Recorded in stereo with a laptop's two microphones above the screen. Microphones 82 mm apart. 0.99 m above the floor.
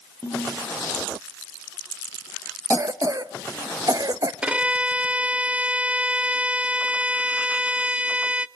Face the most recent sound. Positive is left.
turn(degrees=-15)  # may be behind; listen again after turning